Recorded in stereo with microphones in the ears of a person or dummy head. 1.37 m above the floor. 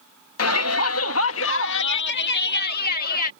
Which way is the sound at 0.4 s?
85° left.